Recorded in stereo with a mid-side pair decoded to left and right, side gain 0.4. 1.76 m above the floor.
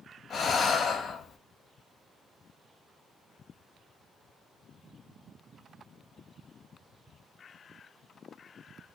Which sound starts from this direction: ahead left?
Breathing, at 0.3 s.